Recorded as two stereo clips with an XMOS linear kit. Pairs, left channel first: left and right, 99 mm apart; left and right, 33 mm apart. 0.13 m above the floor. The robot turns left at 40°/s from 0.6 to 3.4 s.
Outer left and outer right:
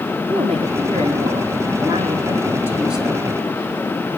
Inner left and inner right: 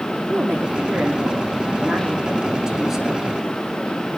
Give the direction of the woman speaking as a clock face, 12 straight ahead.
3 o'clock.